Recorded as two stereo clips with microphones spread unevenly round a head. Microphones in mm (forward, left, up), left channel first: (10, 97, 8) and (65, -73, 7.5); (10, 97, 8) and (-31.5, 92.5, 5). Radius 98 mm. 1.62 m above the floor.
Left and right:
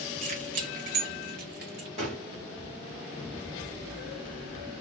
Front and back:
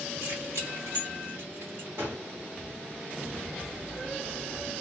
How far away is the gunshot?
About 2.5 m.